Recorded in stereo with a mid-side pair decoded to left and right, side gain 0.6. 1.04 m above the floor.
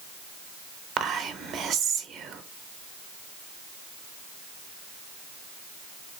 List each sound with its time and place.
1.0 s whispering: 55° right, 0.8 m